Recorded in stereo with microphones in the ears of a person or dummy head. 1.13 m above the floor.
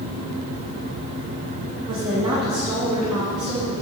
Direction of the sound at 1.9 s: 30° right (ahead or behind).